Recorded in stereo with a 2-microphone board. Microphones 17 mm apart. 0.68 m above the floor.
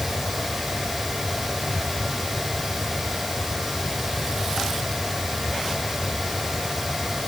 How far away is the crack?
I don't hear a crack.